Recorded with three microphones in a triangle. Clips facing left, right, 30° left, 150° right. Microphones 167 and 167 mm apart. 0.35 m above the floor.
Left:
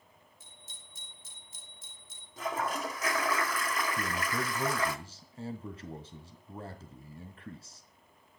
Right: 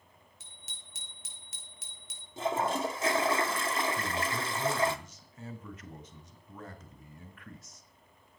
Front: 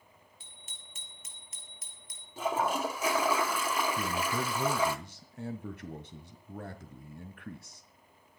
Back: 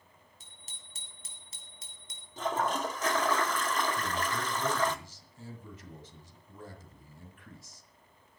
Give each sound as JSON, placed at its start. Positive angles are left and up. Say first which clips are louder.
{"t": 0.4, "sound": "a bicycle bell", "louder": "even, front 1 dB", "azimuth_deg": -100, "distance_m": 5.0}
{"t": 2.4, "sound": "a toilet flushing", "louder": "right 4 dB, front 1 dB", "azimuth_deg": -45, "distance_m": 1.3}
{"t": 4.0, "sound": "a man speaking", "louder": "even, front 2 dB", "azimuth_deg": 35, "distance_m": 1.9}